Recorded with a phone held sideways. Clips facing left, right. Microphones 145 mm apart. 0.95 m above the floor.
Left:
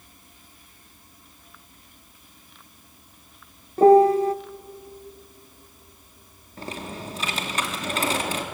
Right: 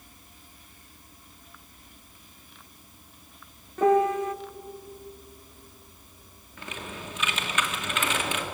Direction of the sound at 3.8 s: 35° left (ahead or behind).